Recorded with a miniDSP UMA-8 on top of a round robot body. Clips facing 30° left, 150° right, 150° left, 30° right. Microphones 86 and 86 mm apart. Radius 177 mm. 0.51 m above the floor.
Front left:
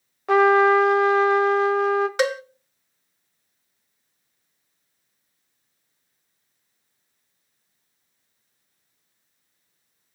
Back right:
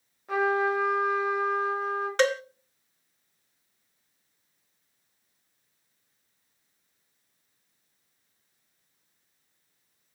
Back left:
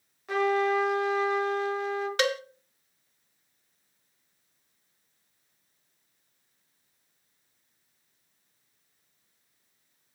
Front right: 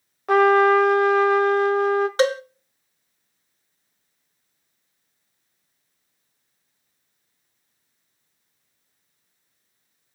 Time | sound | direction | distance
0.3 | a trumpet | 10° left | 0.5 m
2.2 | a cowbell | 45° right | 0.9 m